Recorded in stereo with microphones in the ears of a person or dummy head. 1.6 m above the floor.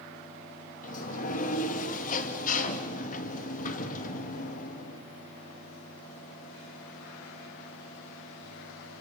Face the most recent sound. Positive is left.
turn(degrees=50)  # may be behind; listen again after turning